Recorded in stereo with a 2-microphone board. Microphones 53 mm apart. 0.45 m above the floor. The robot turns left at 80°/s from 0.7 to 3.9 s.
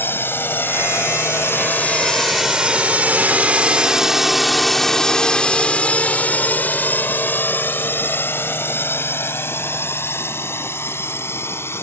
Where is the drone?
45° left (ahead or behind); by 11.8 s 50° left (ahead or behind).